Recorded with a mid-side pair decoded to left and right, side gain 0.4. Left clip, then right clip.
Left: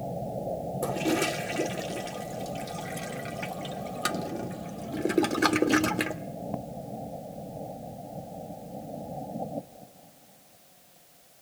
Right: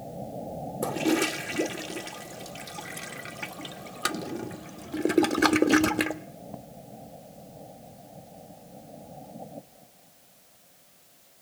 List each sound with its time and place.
0.8 s a toilet flushing: 20° right, 1.4 m